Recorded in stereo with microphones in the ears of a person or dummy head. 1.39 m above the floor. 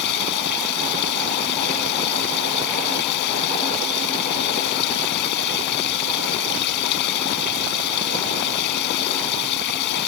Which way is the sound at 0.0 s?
50° left (ahead or behind).